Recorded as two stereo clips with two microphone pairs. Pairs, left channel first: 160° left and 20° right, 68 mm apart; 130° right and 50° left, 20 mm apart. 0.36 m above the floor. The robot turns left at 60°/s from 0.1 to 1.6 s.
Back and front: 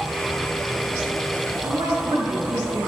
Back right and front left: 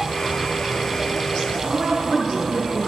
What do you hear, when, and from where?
1.6 s a woman speaking: 25° right, 5 m